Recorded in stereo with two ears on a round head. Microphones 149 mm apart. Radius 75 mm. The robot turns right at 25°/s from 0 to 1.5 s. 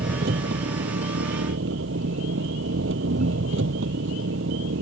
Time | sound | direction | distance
0.0 | an engine running | 125° right | ?